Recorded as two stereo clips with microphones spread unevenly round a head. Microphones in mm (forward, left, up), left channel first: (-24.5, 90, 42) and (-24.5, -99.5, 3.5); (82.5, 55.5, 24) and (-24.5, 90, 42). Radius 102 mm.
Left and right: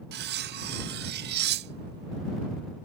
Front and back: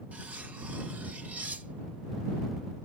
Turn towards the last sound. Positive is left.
turn(degrees=-125)